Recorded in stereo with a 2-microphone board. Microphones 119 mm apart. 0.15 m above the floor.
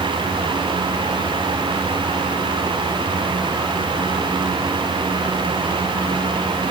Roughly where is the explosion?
I don't hear an explosion.